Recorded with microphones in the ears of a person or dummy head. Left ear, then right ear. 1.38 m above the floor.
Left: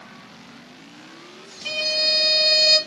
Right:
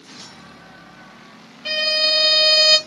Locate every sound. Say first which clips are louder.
1.6 s a violin: right 3 dB; 15° right (ahead or behind), 0.7 m